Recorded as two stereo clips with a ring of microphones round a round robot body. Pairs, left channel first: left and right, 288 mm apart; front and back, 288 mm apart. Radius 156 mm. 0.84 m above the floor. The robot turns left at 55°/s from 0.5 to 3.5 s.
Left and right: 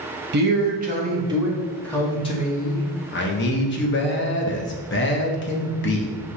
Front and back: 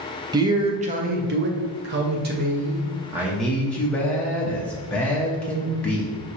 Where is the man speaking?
110° right, 0.7 m; by 6.1 s 85° left, 0.7 m.